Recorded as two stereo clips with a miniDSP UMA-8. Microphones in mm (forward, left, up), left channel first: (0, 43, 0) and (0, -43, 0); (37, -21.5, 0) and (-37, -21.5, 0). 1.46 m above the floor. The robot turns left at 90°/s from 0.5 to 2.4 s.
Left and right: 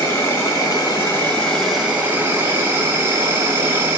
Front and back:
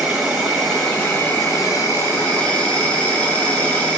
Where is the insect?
115° left, 1.3 m; by 4.0 s 55° right, 1.3 m.